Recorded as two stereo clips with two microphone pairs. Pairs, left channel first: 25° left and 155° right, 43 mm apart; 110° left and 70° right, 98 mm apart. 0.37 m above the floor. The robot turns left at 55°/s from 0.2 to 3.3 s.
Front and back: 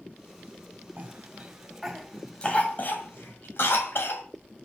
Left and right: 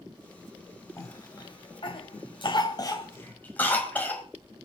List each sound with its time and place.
1.0 s a cough: 170° left, 2 m; by 4.2 s 40° left, 2 m